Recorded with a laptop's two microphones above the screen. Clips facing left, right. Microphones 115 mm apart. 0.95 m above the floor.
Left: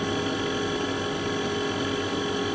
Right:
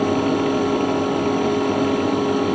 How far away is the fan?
About 1.0 m.